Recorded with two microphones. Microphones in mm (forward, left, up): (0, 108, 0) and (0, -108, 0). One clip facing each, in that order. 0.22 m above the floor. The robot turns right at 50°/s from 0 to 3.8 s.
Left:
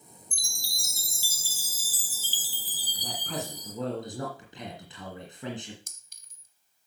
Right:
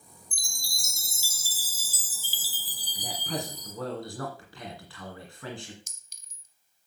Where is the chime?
120° right, 1.1 m; by 3.7 s 55° left, 1.1 m.